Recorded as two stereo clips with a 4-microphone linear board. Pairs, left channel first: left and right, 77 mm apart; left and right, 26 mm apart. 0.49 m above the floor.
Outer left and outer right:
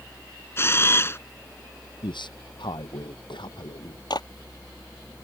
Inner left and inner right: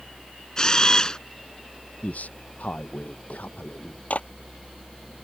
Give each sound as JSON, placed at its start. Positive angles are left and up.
{"t": 0.6, "sound": "a camera shutter", "side_deg": 30}
{"t": 2.0, "sound": "a man speaking", "side_deg": 85}
{"t": 4.1, "sound": "a clap", "side_deg": 65}